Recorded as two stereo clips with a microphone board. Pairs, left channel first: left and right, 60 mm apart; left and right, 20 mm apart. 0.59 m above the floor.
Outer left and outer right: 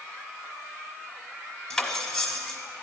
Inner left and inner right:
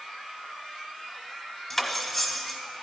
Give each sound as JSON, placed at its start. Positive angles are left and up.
{"t": 1.7, "sound": "cutlery clinking", "side_deg": 15, "distance_m": 1.1}